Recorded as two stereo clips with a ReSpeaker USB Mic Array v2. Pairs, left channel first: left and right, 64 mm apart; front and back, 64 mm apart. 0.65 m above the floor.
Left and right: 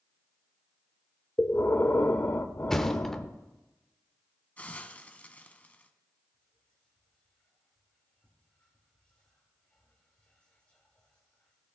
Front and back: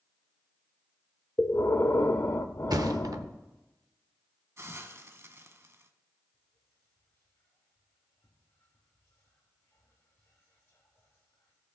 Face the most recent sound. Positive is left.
turn(degrees=25)